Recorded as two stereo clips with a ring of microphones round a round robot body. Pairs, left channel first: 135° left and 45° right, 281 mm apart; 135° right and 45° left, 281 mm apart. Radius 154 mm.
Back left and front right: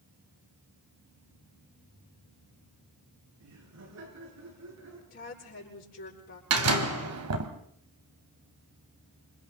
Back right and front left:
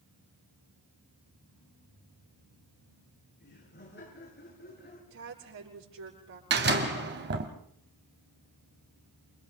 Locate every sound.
3.4 s laughter: 80° right, 7 m
5.1 s a woman speaking: 80° left, 7.5 m
6.5 s a door slam: 10° right, 2.5 m